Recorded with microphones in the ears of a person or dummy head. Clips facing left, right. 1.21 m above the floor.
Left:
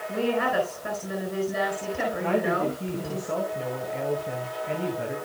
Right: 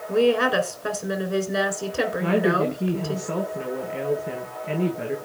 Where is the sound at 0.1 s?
70° right (ahead or behind), 4 m.